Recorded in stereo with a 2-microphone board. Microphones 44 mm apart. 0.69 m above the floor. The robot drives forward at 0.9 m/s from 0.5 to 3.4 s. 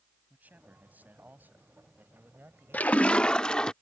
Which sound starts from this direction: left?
A splash, at 2.7 s.